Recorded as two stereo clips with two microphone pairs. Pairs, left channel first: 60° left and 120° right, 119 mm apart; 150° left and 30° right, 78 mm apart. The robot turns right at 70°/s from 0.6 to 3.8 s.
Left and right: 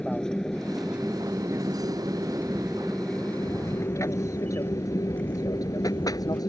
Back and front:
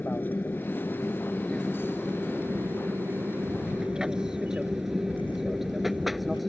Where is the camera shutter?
110° left; by 6.4 s 140° left.